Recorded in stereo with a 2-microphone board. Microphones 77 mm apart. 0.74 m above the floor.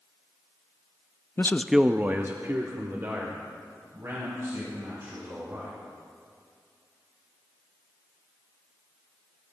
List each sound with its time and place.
1.4 s a man speaking: 35° left (ahead or behind), 0.6 m; by 5.7 s 40° right (ahead or behind), 6 m